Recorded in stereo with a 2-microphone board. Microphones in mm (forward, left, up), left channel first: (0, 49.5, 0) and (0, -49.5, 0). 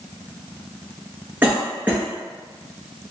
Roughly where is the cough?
Centre.